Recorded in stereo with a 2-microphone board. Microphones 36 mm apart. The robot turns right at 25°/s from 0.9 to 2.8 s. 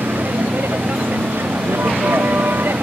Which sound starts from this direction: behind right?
A vehicle, at 0.0 s.